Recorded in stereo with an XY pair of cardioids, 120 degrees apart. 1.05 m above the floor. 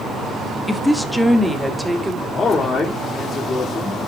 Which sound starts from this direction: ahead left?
A man speaking, at 2.3 s.